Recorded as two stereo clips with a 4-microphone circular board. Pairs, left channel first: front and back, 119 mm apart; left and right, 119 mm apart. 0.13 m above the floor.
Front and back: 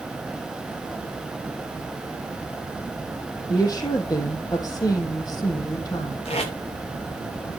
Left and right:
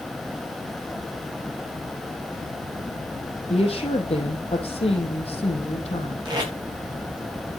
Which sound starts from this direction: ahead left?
A woman speaking, at 3.5 s.